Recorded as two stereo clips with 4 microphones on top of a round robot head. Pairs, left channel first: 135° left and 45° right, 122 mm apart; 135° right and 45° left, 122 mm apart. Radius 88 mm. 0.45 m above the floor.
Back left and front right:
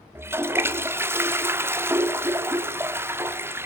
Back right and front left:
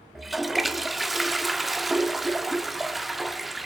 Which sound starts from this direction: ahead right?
A toilet flushing, at 0.1 s.